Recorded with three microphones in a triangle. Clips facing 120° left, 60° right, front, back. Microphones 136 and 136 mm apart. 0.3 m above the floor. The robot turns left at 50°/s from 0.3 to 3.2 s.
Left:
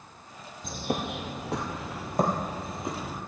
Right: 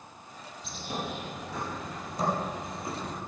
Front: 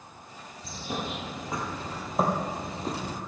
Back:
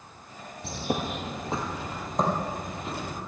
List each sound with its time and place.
0.6 s a bird: 160° left, 2 m; by 3.2 s 35° left, 2 m